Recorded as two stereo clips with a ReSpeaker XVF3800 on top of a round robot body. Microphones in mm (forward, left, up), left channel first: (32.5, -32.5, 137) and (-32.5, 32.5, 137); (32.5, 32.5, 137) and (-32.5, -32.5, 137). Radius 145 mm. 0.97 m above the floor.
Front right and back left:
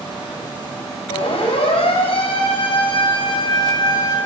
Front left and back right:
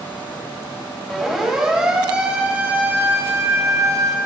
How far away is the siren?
About 6 m.